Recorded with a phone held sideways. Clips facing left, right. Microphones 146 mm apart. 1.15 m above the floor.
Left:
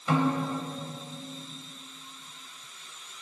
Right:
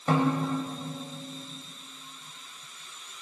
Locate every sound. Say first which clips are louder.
0.1 s a snare drum: right 1 dB; 45° right (ahead or behind), 2 m